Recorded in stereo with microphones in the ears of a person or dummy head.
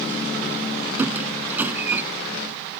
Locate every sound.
1.0 s a squeak: 10° right (ahead or behind)